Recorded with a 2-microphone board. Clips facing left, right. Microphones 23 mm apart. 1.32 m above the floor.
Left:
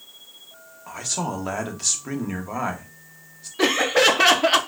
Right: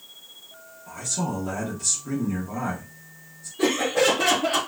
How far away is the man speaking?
About 0.7 m.